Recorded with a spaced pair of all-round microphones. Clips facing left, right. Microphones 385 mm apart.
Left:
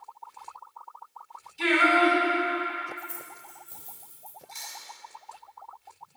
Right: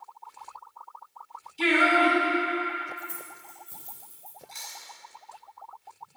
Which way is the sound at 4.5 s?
25° left (ahead or behind).